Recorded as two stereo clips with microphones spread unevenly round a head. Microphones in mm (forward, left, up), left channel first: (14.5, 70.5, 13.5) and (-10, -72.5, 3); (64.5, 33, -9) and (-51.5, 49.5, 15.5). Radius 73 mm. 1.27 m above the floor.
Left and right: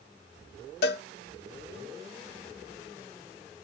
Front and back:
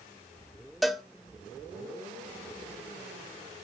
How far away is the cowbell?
About 0.6 m.